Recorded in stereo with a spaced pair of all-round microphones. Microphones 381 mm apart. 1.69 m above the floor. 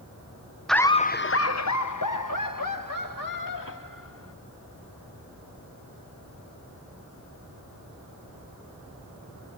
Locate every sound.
0.7 s laughter: centre (ahead or behind); by 4.3 s 60° left (ahead or behind)